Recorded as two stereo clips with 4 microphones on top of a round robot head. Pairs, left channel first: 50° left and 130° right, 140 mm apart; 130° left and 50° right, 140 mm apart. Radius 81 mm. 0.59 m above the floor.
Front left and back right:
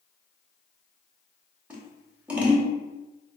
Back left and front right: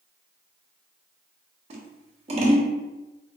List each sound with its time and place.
1.7 s scissors: 55° right, 1.1 m